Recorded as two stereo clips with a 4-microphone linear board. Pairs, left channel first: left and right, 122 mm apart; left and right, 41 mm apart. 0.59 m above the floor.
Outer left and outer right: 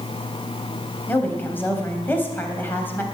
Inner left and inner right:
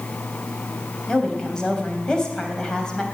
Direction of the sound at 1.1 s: 15° left (ahead or behind).